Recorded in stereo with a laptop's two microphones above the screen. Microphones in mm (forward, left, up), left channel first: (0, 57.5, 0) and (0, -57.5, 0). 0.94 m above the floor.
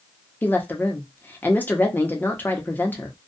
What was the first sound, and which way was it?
A woman speaking, 15° left (ahead or behind).